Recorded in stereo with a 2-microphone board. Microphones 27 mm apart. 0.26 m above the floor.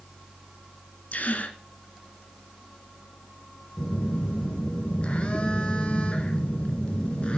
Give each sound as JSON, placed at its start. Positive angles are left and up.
{"t": 1.1, "sound": "a gasp", "side_deg": 65, "distance_m": 1.7}
{"t": 3.8, "sound": "a phone buzzing", "side_deg": 40, "distance_m": 2.0}